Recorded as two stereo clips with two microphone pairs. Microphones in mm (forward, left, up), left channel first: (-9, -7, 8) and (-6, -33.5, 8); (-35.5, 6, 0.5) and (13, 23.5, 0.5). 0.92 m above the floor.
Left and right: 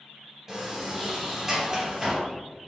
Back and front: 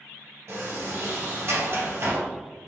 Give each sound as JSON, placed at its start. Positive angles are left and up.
{"t": 0.5, "sound": "a sliding door", "azimuth_deg": -5, "distance_m": 3.0}